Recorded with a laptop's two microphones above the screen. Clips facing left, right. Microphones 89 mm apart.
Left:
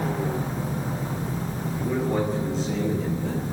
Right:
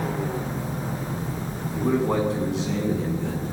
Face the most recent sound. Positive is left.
turn(degrees=-85)